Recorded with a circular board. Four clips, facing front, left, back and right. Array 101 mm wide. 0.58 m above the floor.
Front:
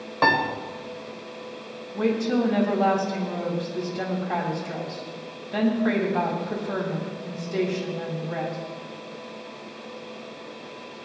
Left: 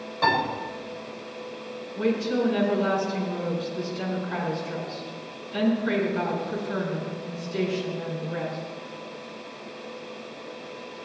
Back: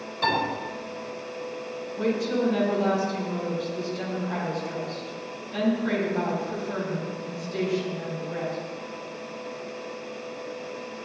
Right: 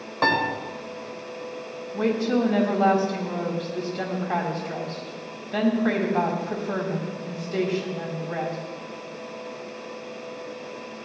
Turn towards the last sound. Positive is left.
turn(degrees=-55)